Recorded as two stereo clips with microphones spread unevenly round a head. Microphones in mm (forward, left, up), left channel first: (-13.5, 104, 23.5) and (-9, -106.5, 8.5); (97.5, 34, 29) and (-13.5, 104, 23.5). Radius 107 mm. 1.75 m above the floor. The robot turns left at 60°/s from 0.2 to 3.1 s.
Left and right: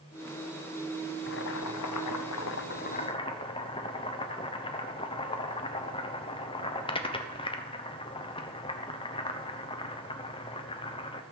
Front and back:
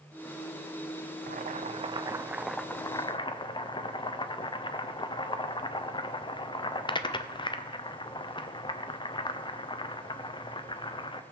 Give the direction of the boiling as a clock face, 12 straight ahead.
8 o'clock.